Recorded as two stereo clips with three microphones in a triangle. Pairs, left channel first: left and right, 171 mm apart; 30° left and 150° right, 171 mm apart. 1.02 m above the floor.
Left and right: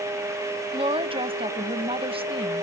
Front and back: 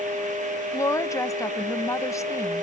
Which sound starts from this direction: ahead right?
A woman speaking, at 0.7 s.